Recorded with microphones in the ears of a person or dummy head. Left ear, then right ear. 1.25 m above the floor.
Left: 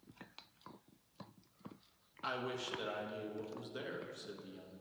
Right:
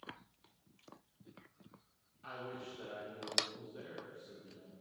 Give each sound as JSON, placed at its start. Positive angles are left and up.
{"t": 2.2, "sound": "a man speaking", "side_deg": 50, "distance_m": 1.4}